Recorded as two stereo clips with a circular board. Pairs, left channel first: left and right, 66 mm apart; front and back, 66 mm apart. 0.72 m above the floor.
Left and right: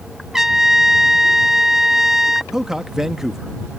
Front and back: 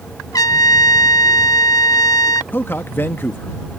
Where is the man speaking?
10° right.